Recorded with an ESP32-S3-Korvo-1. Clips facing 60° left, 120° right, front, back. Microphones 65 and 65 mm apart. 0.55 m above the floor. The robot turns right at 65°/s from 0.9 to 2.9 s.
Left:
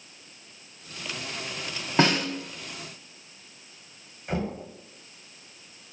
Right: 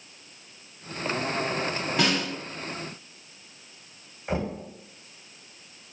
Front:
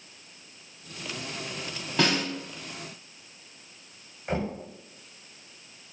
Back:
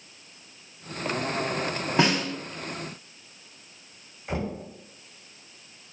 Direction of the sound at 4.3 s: 60° right.